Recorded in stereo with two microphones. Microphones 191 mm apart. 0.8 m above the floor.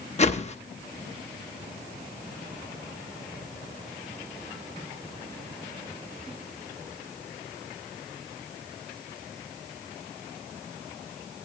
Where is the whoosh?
35° left (ahead or behind), 0.7 m.